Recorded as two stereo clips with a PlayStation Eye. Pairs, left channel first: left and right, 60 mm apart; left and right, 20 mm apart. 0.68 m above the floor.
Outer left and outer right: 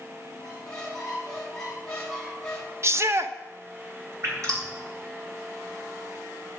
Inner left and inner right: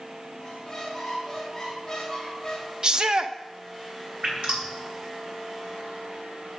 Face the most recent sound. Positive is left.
turn(degrees=-60)  # may be behind; listen again after turning